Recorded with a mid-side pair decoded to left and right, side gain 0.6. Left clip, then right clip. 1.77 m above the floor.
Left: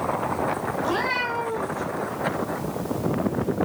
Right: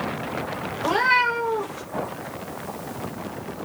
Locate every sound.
0.8 s a cat meowing: 45° right, 3.5 m